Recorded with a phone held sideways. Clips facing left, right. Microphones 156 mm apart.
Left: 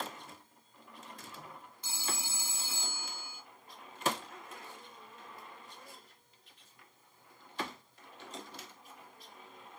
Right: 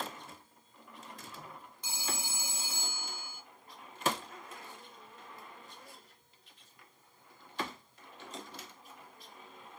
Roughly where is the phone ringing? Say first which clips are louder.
Right 1 dB; centre.